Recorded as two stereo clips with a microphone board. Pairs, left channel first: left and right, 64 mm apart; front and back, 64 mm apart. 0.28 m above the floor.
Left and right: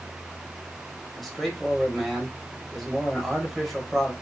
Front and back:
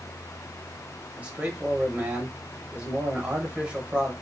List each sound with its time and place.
1.2 s a man speaking: 175° left, 1.0 m